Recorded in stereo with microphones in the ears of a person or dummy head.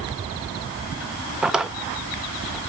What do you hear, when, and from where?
1.4 s a drawer: 5° right (ahead or behind), 0.7 m